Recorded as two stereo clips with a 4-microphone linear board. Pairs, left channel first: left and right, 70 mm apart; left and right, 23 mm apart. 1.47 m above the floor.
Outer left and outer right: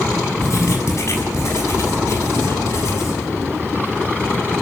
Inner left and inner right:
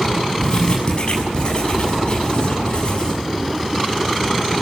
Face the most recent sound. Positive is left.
turn(degrees=45)  # may be behind; listen again after turning